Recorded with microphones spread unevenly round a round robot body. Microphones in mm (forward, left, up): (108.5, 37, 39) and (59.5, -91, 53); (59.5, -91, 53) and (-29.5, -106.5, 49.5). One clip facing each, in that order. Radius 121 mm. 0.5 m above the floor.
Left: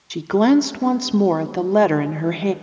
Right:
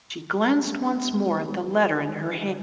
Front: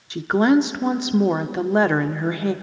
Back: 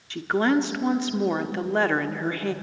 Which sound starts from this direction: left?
A woman speaking, at 0.1 s.